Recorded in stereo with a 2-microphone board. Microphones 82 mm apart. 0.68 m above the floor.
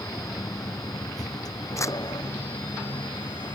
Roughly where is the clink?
I don't hear a clink.